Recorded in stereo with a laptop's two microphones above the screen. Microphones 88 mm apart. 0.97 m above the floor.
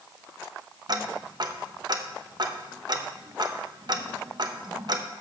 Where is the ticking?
50° right (ahead or behind), 0.6 m.